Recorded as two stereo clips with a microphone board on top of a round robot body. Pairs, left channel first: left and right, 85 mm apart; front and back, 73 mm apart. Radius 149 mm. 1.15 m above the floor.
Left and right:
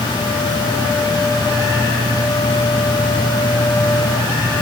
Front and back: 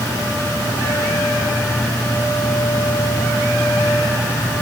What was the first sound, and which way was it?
Only background noise.